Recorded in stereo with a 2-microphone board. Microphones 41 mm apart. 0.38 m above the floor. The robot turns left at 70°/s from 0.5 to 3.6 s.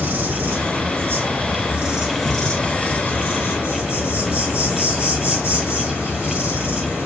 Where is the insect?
55° right, 0.7 m; by 7.1 s 90° left, 0.7 m.